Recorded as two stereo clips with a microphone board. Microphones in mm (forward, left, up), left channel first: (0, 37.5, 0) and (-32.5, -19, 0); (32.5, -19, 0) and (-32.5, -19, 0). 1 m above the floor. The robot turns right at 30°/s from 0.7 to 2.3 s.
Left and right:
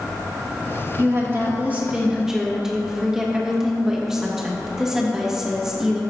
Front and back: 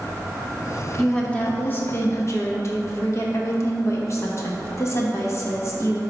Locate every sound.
1.0 s a woman speaking: 75° right, 1.5 m; by 6.0 s 40° right, 1.5 m